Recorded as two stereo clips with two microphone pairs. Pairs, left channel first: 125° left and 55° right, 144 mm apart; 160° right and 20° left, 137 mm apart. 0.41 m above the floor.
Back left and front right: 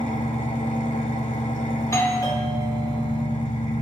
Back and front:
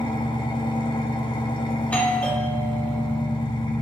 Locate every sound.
0.0 s an engine running: 155° left, 1.3 m
1.8 s a doorbell: 140° left, 1.2 m